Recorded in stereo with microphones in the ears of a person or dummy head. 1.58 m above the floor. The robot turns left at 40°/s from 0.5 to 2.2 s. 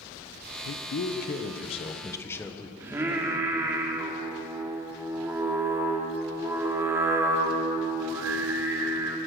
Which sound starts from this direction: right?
Singing, at 2.8 s.